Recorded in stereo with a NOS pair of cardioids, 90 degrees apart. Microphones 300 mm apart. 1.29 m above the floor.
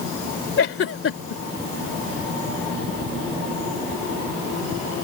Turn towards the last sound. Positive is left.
turn(degrees=50)